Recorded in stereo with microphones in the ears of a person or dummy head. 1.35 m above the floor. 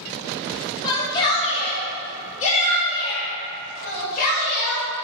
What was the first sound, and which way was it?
A shout, 25° left (ahead or behind).